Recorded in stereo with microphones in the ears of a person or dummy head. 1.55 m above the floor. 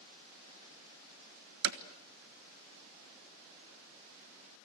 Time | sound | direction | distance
1.6 | hammering | 65° right (ahead or behind) | 1.3 m